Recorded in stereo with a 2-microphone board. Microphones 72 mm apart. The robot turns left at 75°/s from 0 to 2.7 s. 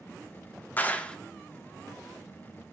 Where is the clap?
25° left (ahead or behind), 0.6 m; by 1.2 s 15° left (ahead or behind), 0.6 m.